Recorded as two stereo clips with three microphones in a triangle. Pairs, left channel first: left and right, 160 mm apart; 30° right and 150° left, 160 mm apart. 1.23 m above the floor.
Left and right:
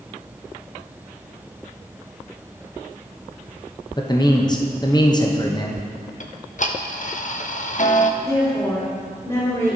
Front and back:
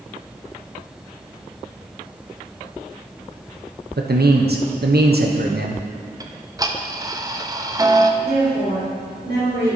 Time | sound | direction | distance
4.0 | a man speaking | 155° left | 0.8 m
6.2 | ticking | 90° left | 0.6 m
8.2 | a woman speaking | 145° left | 2.5 m